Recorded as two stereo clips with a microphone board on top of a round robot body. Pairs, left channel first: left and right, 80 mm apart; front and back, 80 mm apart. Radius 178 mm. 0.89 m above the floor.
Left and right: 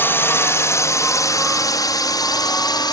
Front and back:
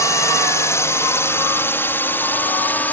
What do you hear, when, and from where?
0.0 s a drone: 35° left; by 2.9 s 65° left